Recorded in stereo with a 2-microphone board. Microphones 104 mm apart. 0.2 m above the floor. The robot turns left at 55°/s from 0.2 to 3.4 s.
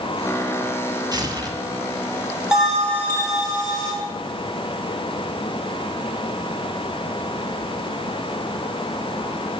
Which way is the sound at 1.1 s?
40° right (ahead or behind).